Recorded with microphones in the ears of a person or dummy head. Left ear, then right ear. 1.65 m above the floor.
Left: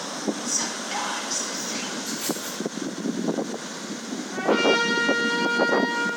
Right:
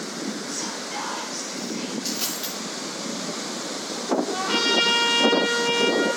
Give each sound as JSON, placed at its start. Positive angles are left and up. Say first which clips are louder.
{"t": 0.5, "sound": "whispering", "louder": "left 3 dB", "side_deg": 75, "distance_m": 3.5}
{"t": 2.0, "sound": "a dropped coin", "louder": "right 1 dB", "side_deg": -50, "distance_m": 1.9}
{"t": 4.3, "sound": "a trumpet", "louder": "left 3 dB", "side_deg": -60, "distance_m": 3.5}